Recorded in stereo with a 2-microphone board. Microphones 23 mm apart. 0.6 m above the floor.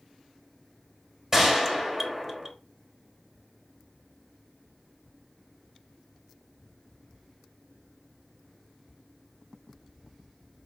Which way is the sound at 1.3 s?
20° right (ahead or behind).